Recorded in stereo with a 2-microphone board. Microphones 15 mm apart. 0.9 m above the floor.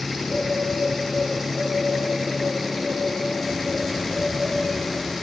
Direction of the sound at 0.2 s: 75° left (ahead or behind).